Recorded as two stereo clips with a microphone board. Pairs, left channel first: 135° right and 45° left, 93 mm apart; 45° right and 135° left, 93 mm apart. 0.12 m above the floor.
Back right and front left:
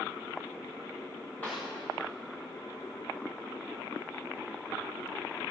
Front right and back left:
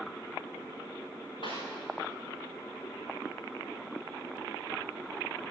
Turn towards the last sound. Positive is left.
turn(degrees=-65)